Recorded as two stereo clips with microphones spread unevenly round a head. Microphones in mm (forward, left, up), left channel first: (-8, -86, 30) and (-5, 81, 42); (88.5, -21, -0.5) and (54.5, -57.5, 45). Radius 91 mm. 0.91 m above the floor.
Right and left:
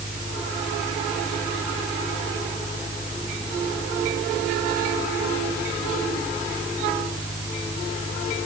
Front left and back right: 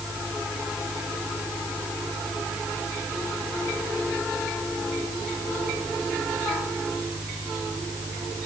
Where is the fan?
140° right.